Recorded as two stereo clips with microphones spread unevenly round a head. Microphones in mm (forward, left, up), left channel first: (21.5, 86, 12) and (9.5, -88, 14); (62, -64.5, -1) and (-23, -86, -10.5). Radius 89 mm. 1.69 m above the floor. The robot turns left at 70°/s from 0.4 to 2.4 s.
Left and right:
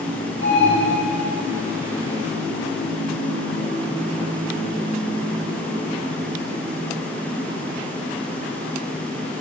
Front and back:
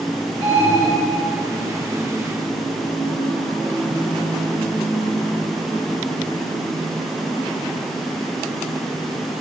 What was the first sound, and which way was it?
An alarm, 170° right.